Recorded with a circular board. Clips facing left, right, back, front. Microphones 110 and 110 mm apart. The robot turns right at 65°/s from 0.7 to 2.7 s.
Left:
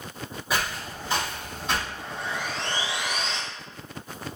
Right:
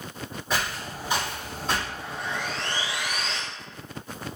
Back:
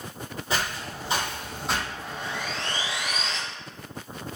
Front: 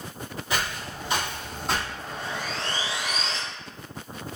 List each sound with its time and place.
0.5 s footsteps: 170° left, 1.8 m; by 1.9 s 80° right, 2 m
2.0 s sawing: 10° right, 0.6 m; by 3.4 s 35° left, 0.6 m